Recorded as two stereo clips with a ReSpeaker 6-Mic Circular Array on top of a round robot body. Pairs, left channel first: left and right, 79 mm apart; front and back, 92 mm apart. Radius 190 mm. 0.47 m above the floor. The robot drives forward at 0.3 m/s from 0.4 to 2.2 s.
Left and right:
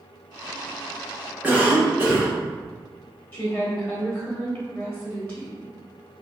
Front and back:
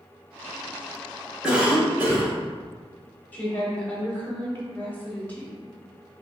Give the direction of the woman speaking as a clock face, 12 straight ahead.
10 o'clock.